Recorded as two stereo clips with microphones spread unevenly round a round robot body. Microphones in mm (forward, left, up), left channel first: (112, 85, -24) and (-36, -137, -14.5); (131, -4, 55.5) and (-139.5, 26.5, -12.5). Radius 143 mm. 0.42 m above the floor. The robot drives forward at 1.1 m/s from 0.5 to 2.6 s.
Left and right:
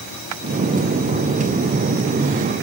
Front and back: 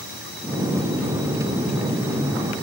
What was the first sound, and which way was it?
Only background noise.